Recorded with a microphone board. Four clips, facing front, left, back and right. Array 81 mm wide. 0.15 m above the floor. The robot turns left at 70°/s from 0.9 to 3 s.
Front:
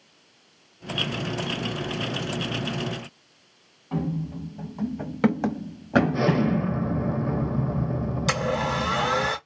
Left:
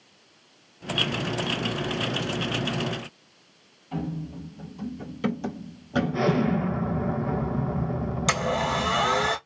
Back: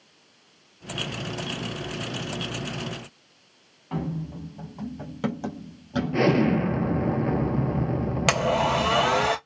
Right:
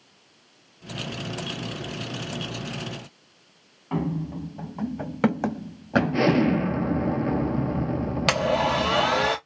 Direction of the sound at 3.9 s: 105° right.